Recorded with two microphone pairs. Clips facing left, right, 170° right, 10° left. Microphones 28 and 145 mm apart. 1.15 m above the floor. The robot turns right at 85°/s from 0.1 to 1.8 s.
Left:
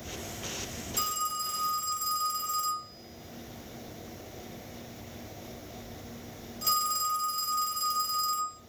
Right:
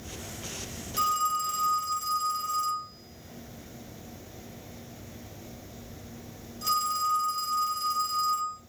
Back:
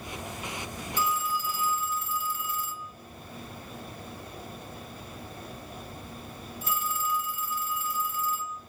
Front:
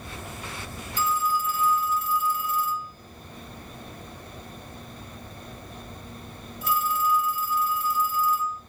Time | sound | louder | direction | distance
1.0 | a phone ringing | right 6 dB, front 4 dB | 60° right | 1.0 m